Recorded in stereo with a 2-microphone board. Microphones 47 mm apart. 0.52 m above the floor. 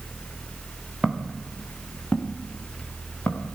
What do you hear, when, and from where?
1.0 s footsteps: 5° left (ahead or behind), 3 m; by 3.5 s 30° left (ahead or behind), 4.5 m